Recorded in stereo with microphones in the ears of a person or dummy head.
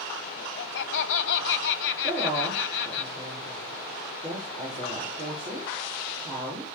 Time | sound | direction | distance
0.4 | laughter | 75° left (ahead or behind) | 1.3 m
2.0 | a woman speaking | 30° right (ahead or behind) | 6 m